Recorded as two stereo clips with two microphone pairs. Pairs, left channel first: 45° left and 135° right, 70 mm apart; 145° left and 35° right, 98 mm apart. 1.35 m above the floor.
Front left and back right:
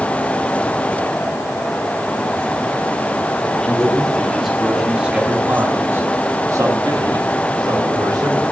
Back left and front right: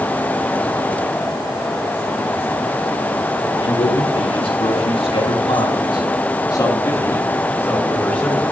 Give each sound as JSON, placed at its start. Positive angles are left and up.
{"t": 3.6, "sound": "a man speaking", "azimuth_deg": 125, "distance_m": 4.0}